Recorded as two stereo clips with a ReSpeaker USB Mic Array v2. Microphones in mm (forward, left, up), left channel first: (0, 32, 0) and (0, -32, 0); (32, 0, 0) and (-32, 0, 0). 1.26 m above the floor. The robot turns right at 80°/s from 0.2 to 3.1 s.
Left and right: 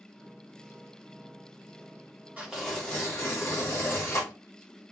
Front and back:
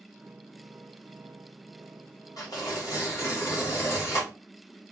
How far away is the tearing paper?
About 1.8 m.